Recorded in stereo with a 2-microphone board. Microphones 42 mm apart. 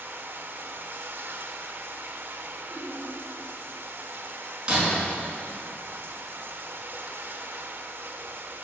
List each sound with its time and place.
0.0 s running water: 65° right (ahead or behind), 0.9 m
2.7 s laughter: centre (ahead or behind), 4.5 m
4.7 s breaking glass: 15° right (ahead or behind), 5 m